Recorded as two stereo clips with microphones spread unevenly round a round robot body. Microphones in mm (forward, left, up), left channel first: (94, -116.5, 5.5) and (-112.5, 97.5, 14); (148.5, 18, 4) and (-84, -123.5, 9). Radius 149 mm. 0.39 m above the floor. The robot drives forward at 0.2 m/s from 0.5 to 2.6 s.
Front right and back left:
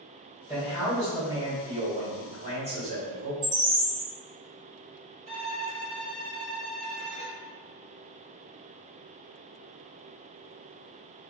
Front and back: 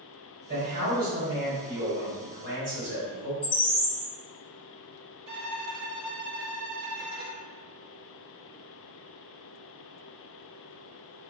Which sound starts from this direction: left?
A bird, at 3.4 s.